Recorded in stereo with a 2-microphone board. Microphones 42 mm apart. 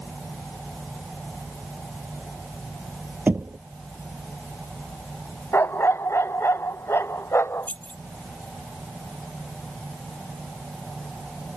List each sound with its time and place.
3.3 s knocking: 55° right (ahead or behind)
5.5 s a dog barking: 85° left
7.6 s keys jangling: 40° left (ahead or behind)